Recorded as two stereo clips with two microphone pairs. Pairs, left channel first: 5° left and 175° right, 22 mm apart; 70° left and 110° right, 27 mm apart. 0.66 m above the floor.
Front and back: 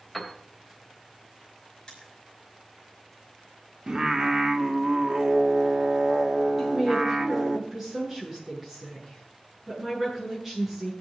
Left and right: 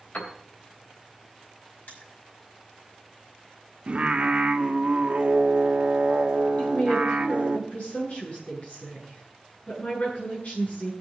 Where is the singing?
130° right, 1.5 m.